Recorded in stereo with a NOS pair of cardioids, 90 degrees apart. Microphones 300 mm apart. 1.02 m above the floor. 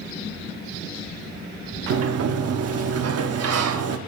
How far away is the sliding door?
About 1.3 m.